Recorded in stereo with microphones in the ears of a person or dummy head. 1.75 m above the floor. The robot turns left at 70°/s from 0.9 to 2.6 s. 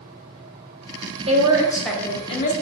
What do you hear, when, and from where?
1.3 s a woman speaking: 140° right, 0.8 m; by 2.5 s 130° left, 0.8 m